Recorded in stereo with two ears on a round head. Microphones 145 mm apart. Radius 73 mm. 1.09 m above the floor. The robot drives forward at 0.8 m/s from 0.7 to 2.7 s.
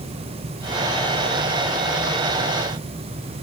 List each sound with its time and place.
Only background noise.